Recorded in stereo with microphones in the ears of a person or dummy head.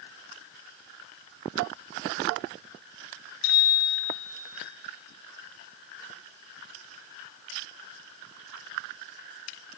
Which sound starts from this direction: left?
A bicycle bell, at 3.4 s.